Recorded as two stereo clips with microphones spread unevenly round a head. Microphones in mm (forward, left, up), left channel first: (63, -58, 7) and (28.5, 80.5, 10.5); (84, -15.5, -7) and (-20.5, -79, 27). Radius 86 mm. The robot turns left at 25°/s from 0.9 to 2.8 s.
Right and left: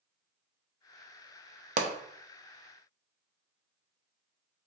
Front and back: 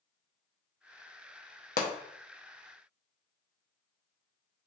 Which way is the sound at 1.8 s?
75° left.